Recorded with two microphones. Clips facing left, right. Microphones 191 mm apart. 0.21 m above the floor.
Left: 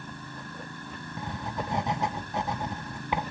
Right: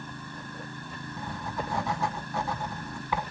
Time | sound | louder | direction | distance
1.2 | writing | left 1 dB | 20° left (ahead or behind) | 0.7 m